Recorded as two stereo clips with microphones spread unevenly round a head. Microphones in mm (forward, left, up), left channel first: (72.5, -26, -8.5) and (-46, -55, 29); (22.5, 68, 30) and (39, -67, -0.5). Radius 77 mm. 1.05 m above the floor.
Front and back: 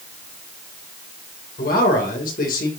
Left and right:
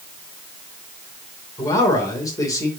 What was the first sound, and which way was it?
A man speaking, 30° left.